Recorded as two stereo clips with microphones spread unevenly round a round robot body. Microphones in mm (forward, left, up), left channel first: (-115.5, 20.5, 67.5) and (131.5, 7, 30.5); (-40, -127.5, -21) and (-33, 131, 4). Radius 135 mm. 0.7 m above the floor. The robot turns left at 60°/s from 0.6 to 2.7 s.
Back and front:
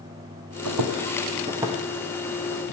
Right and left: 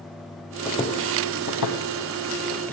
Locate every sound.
0.7 s footsteps: 5° right, 2 m; by 2.7 s straight behind, 1.8 m